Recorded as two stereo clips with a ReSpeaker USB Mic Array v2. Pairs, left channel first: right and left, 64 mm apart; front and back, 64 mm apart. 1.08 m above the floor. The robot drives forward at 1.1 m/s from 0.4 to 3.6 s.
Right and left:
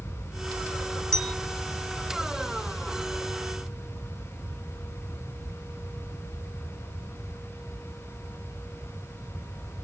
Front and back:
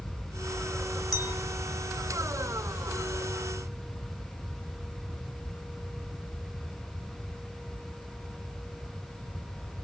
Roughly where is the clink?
Ahead.